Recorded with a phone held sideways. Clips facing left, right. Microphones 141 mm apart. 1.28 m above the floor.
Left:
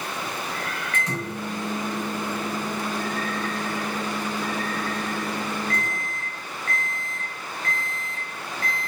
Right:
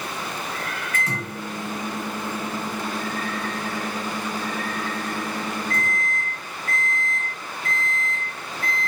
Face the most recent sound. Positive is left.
turn(degrees=-5)  # may be behind; listen again after turning